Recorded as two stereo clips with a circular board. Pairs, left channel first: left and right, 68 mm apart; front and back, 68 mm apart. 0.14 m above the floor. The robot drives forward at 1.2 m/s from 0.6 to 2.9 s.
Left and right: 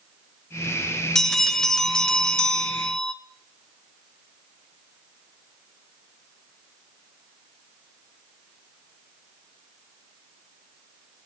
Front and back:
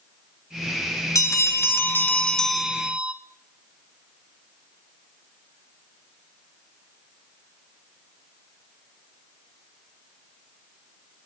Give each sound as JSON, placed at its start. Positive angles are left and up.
{"t": 1.1, "sound": "a bell", "azimuth_deg": 10, "distance_m": 2.0}